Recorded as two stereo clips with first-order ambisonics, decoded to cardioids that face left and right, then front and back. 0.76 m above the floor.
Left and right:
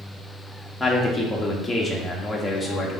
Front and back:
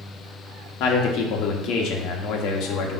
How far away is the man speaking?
About 1.1 m.